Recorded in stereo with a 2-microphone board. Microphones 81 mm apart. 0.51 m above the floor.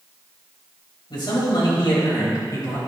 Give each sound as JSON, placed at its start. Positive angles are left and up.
{"t": 1.1, "sound": "a man speaking", "side_deg": 70, "distance_m": 2.5}